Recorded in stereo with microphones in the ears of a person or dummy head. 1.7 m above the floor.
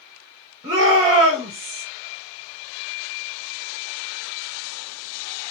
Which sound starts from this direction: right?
A shout, at 0.6 s.